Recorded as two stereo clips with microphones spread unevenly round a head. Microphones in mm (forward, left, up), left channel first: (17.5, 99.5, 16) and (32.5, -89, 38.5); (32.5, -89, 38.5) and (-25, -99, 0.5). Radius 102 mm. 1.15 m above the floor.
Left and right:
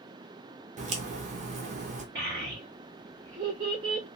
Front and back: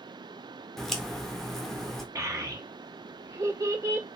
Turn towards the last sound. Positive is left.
turn(degrees=-130)